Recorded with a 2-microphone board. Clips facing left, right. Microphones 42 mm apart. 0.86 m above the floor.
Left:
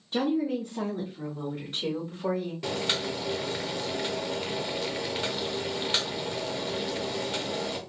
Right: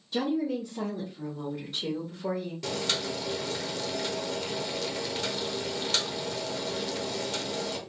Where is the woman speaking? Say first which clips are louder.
Left 2 dB; 40° left (ahead or behind), 1.0 m; by 2.5 s 60° left (ahead or behind), 2 m.